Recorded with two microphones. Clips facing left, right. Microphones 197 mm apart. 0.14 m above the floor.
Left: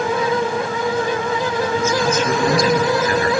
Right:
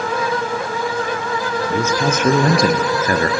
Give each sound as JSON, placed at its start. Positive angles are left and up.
{"t": 1.7, "sound": "a man speaking", "side_deg": -70, "distance_m": 3.5}